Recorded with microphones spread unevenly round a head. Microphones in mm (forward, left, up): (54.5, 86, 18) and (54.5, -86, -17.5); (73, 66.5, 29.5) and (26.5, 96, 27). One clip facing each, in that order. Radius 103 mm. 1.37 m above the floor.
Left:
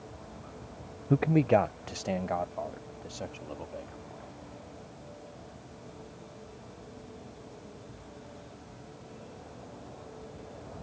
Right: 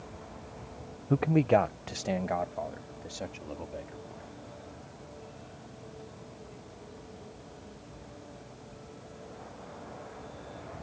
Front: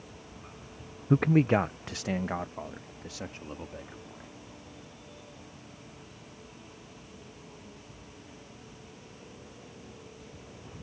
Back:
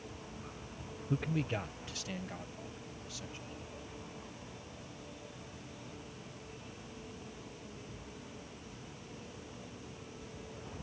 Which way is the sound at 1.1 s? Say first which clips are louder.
Even, front 12 dB; 5° left.